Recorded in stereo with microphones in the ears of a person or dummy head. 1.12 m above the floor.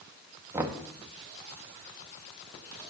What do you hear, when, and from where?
0.5 s knocking: 10° right (ahead or behind), 0.7 m